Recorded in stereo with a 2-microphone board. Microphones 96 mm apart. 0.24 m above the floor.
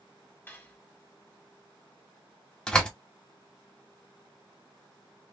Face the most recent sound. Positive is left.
turn(degrees=10)  # may be behind; listen again after turning